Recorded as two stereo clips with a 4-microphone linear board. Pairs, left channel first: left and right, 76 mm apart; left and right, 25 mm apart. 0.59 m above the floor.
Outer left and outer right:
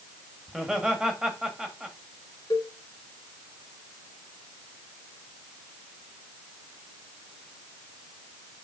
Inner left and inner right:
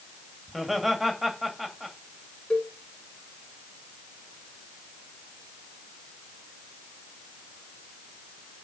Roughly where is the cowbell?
Left.